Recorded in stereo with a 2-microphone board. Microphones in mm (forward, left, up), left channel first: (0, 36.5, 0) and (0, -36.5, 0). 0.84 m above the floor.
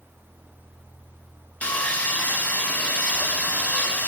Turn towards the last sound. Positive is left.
turn(degrees=20)  # may be behind; listen again after turning